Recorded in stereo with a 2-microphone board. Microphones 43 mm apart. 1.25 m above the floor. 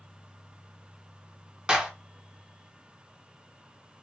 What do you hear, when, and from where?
1.7 s a clap: 20° right (ahead or behind), 1.0 m